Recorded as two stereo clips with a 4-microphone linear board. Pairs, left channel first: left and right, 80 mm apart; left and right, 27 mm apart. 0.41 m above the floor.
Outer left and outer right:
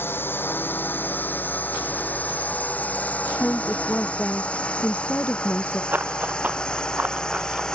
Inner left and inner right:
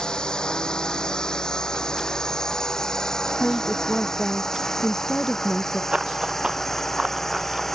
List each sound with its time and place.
0.0 s a drone: 30° left (ahead or behind); by 7.8 s 10° left (ahead or behind)
3.4 s a woman speaking: 25° left (ahead or behind)
5.9 s running footsteps: 20° right (ahead or behind)